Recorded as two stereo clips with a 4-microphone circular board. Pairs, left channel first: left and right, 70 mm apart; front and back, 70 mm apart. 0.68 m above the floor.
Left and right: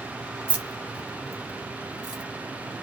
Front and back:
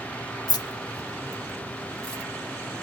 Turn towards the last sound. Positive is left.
turn(degrees=-85)